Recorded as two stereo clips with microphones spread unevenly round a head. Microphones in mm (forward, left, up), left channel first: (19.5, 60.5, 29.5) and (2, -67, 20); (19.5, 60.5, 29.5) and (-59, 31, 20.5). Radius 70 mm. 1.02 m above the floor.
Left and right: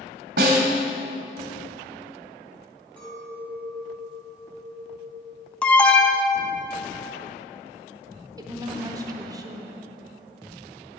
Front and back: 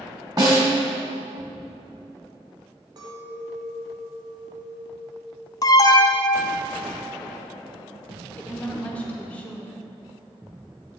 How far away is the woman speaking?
About 0.8 m.